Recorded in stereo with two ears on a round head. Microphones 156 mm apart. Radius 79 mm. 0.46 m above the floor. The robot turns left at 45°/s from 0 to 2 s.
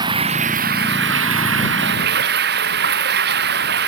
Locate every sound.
0.0 s running water: 20° right; by 3.9 s 110° right